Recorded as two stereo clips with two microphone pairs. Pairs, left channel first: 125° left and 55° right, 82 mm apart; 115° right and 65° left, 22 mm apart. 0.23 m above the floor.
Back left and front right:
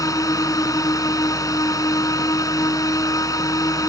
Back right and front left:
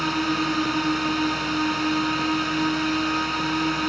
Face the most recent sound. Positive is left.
turn(degrees=155)